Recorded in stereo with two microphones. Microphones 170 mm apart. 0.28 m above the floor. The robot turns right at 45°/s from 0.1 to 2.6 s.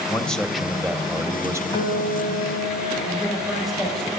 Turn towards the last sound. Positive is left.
turn(degrees=5)  # may be behind; listen again after turning